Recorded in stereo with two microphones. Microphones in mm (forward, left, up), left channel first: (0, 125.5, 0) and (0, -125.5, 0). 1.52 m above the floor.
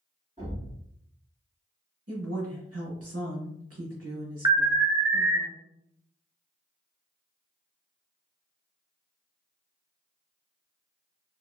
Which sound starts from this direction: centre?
An alarm, at 4.5 s.